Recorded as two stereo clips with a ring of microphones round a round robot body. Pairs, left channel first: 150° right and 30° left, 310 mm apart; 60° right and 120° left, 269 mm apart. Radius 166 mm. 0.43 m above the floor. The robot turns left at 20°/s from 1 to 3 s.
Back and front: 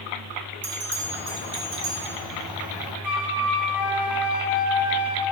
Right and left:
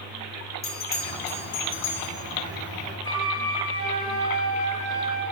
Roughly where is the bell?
Ahead.